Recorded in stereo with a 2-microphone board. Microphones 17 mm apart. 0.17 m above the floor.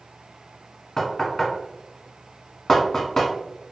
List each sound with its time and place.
1.0 s knocking: 35° left (ahead or behind), 1.0 m